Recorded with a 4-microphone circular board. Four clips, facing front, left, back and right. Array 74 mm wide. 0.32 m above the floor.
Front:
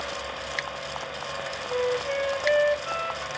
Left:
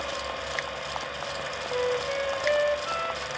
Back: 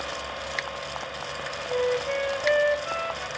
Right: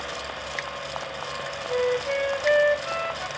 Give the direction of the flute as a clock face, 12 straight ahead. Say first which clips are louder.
Right 4 dB, back 1 dB; 3 o'clock.